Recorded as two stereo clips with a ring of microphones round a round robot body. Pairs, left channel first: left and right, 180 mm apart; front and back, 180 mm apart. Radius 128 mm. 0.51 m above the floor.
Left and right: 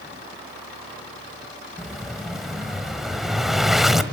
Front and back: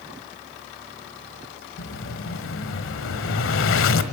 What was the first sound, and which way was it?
An explosion, straight ahead.